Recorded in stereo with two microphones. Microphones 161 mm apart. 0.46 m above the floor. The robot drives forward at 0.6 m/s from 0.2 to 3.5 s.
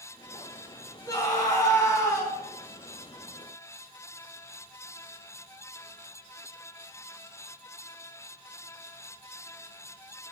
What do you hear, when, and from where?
1.1 s a scream: 25° left (ahead or behind), 3 m; by 2.3 s 20° left (ahead or behind), 3.5 m